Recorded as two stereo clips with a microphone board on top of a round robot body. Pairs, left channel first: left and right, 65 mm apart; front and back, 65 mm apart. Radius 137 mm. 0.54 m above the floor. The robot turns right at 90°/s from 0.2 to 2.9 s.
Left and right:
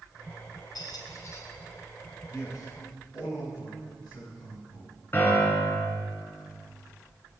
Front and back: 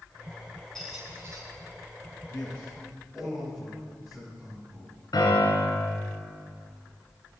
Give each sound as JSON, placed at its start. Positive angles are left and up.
{"t": 0.8, "sound": "a squeak", "azimuth_deg": 85, "distance_m": 2.5}
{"t": 2.3, "sound": "a man speaking", "azimuth_deg": 55, "distance_m": 7.0}
{"t": 5.1, "sound": "a piano", "azimuth_deg": 35, "distance_m": 4.0}